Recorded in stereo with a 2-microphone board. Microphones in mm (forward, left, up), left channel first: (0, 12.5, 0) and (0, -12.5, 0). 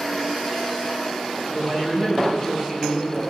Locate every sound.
1.5 s a man speaking: 30° right (ahead or behind), 7 m